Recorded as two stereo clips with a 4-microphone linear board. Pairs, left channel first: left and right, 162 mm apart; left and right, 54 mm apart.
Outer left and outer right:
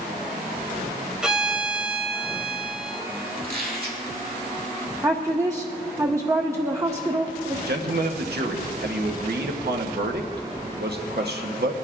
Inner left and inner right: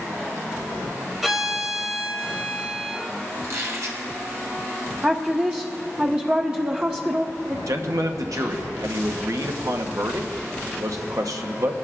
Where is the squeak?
70° right (ahead or behind), 2 m.